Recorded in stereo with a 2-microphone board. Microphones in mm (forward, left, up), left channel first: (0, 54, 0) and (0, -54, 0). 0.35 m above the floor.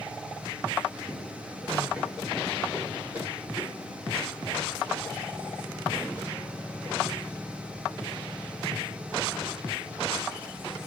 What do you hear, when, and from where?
1.0 s running footsteps: 5° right (ahead or behind), 6 m; by 10.5 s 60° right (ahead or behind), 5 m